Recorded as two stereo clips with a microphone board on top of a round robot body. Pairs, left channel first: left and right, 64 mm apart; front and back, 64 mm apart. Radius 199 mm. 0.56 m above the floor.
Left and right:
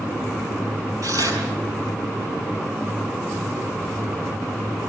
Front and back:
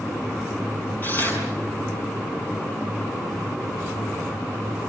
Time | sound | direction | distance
1.0 | tearing paper | 60° right | 5.5 m